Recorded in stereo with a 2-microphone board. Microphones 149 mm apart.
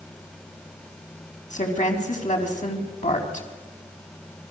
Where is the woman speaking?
55° left (ahead or behind), 4.5 m.